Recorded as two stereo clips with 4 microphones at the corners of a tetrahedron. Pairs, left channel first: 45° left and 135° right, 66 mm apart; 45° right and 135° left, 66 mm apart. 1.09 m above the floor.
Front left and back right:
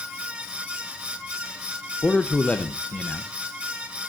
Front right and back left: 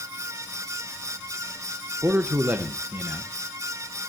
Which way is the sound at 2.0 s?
105° left.